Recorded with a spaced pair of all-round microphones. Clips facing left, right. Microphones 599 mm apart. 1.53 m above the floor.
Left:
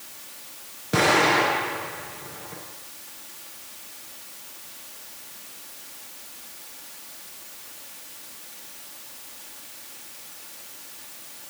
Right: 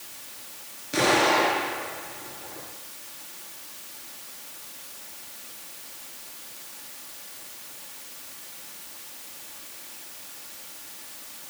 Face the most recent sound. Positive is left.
turn(degrees=75)  # may be behind; listen again after turning